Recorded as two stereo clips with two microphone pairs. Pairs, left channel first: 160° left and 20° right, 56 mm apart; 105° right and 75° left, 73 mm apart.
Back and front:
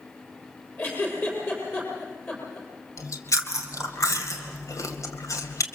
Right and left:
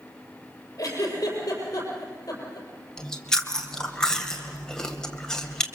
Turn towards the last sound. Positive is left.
turn(degrees=170)